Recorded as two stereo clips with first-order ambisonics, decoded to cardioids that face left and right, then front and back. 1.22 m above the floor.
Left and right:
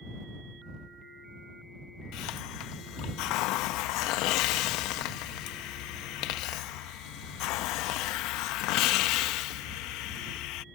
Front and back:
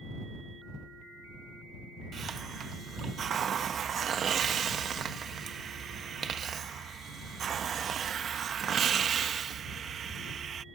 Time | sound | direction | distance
2.1 | a hiss | 120° left | ?